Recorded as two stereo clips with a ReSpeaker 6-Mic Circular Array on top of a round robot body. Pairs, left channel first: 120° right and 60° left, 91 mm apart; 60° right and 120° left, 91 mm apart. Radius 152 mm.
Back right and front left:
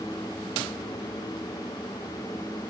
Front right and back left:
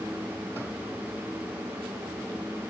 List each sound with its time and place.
Only background noise.